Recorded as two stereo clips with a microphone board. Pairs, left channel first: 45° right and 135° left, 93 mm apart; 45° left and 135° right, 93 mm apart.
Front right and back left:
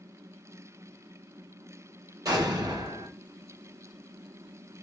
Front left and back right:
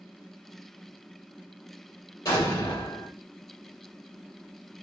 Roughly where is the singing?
No singing in this recording.